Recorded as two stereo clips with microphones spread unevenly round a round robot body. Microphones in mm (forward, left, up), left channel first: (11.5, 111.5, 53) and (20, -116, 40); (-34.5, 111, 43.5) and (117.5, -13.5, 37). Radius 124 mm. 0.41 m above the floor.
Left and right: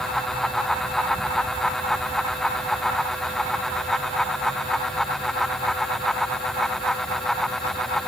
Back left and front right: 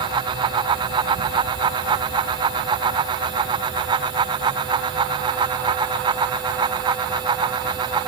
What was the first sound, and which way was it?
Only background noise.